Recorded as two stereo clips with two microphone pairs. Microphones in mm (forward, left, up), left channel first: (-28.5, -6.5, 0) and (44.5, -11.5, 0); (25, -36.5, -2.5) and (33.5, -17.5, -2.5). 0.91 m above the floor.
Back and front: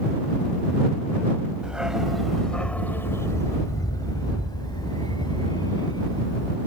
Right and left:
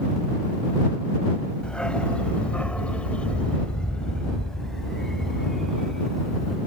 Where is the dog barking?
80° right; by 6.6 s 160° left.